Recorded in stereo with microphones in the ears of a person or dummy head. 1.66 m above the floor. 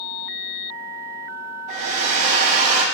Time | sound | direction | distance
1.7 | a hair dryer | 35° right (ahead or behind) | 2 m